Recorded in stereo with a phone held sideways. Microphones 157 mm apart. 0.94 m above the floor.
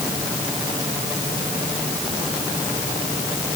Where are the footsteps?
No footsteps in this recording.